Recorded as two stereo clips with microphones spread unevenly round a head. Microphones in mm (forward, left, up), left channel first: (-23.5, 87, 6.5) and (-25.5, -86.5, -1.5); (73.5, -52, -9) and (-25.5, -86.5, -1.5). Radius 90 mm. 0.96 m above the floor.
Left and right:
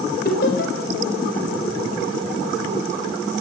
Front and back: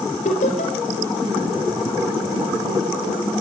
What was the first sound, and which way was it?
Laughter, 45° left.